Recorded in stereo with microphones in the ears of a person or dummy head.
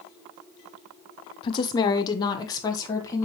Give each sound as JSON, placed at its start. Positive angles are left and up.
{"t": 1.4, "sound": "a woman speaking", "side_deg": 25, "distance_m": 0.7}